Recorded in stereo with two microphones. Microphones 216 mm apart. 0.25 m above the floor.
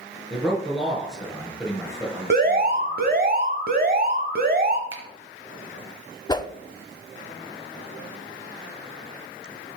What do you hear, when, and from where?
0.3 s a man speaking: centre (ahead or behind), 4 m
2.3 s an alarm: 45° right (ahead or behind), 1.2 m
4.9 s a finger snap: 65° right (ahead or behind), 2 m
6.3 s a whoosh: 20° left (ahead or behind), 0.5 m